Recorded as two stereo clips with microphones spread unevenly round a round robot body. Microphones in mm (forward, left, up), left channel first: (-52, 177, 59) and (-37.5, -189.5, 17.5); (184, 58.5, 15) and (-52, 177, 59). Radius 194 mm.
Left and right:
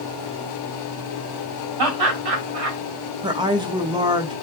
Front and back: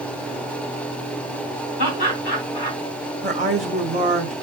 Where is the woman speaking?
150° right, 0.9 m.